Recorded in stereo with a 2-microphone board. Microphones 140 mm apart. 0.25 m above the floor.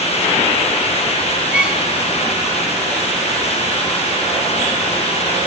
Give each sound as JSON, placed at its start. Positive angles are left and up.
{"t": 1.5, "sound": "a violin", "side_deg": -5, "distance_m": 1.7}